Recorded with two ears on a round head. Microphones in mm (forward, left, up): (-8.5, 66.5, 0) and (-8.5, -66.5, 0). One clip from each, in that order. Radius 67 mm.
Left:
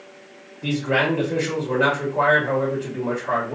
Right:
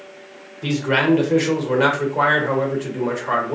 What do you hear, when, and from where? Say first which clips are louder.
0.6 s a man speaking: right 2 dB; 70° right (ahead or behind), 1.3 m